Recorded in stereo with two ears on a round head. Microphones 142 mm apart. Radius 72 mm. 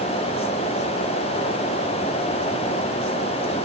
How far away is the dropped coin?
I don't hear a dropped coin.